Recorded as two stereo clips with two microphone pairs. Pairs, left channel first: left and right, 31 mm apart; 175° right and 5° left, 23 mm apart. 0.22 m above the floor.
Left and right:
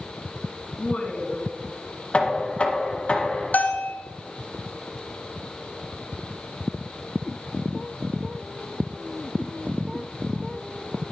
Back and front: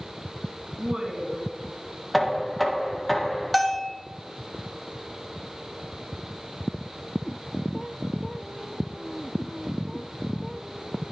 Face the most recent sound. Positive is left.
turn(degrees=95)